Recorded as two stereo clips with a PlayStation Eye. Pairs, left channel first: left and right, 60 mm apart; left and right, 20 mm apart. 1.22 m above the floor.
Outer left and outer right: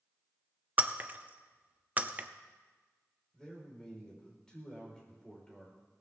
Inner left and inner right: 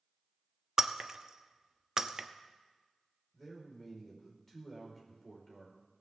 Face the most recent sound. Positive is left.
turn(degrees=10)  # may be behind; listen again after turning